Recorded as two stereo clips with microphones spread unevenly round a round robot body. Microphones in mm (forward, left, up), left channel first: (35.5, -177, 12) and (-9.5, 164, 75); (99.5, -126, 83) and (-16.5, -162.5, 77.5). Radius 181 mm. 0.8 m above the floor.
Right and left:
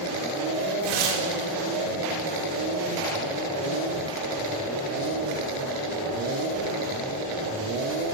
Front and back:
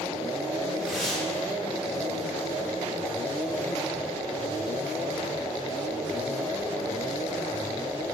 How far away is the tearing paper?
About 2.5 m.